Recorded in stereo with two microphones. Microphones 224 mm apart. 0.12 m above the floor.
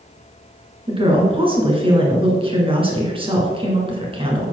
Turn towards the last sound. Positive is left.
turn(degrees=-25)  # may be behind; listen again after turning